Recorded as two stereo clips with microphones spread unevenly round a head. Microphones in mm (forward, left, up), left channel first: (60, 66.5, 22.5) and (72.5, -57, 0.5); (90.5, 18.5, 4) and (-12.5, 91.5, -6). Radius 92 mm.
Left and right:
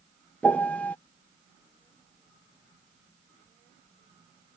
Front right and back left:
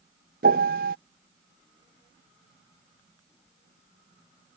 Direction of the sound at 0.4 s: Straight behind.